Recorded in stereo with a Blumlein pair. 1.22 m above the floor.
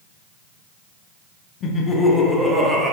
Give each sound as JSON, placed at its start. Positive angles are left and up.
{"t": 1.6, "sound": "laughter", "azimuth_deg": 30, "distance_m": 1.2}